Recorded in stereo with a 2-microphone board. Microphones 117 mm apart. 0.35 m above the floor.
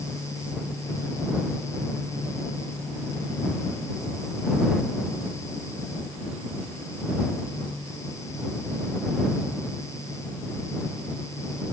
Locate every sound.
Only background noise.